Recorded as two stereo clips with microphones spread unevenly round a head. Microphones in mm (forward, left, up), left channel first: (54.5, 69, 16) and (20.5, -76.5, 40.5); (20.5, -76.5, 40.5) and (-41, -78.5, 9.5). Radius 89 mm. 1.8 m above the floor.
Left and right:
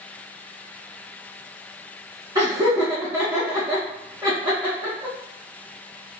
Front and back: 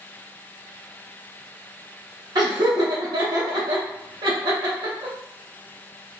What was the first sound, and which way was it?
Laughter, 160° right.